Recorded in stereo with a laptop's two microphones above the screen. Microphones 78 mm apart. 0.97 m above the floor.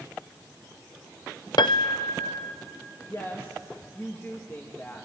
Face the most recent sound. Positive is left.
turn(degrees=30)  # may be behind; listen again after turning